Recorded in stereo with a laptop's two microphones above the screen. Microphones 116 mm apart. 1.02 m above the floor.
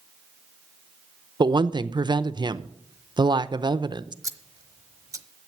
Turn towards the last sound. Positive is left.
turn(degrees=-30)  # may be behind; listen again after turning